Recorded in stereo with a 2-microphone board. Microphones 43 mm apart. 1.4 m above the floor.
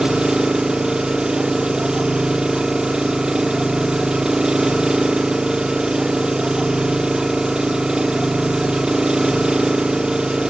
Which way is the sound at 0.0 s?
20° right (ahead or behind).